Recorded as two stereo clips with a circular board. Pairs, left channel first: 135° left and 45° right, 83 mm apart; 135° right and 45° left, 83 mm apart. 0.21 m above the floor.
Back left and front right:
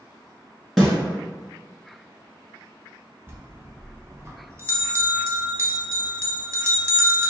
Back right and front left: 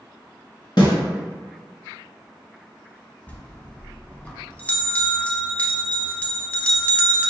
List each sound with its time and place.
0.8 s a snare drum: 135° right, 2.0 m
3.3 s a bell: 75° right, 0.7 m